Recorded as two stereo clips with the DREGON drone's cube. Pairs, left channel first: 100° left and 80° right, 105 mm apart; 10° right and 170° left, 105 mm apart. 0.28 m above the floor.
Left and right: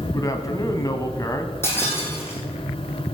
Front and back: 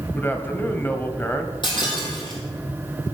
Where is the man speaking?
55° left, 1.4 m.